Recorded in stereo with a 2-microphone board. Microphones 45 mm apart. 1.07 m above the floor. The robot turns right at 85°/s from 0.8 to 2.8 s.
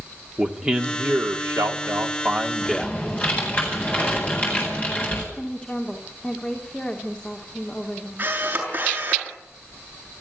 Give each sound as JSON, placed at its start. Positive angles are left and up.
{"t": 0.4, "sound": "a man speaking", "azimuth_deg": -160, "distance_m": 2.5}
{"t": 2.6, "sound": "typing on a keyboard", "side_deg": 15, "distance_m": 9.5}
{"t": 5.3, "sound": "a woman speaking", "side_deg": 25, "distance_m": 3.0}
{"t": 8.2, "sound": "a camera shutter", "side_deg": -40, "distance_m": 7.0}